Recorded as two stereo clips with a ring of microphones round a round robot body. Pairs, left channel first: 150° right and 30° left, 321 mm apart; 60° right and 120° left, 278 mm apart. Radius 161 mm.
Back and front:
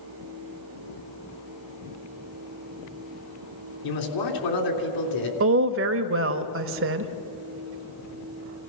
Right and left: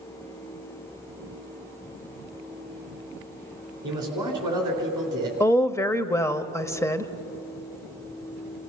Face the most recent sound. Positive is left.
turn(degrees=15)